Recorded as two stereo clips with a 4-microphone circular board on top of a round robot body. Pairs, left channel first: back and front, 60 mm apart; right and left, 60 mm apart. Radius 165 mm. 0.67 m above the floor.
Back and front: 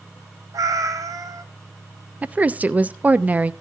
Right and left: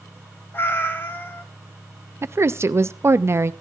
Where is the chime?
I don't hear a chime.